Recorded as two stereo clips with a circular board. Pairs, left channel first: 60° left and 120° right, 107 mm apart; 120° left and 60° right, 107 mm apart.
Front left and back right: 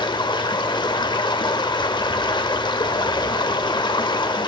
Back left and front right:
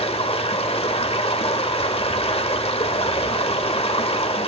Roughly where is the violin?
No violin in this recording.